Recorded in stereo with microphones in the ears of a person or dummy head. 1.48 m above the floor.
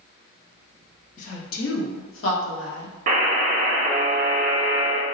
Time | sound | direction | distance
1.2 | a woman speaking | 40° left (ahead or behind) | 0.7 m
3.1 | a buzzer | 45° right (ahead or behind) | 0.6 m